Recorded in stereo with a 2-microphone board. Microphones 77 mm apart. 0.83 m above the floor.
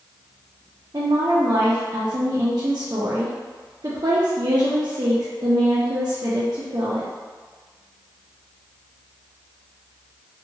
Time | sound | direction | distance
0.9 | a woman speaking | 55° right (ahead or behind) | 0.5 m